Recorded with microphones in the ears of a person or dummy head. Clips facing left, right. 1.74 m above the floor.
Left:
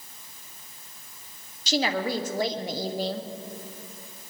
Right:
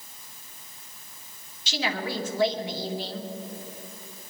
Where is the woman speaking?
45° left (ahead or behind), 1.2 m.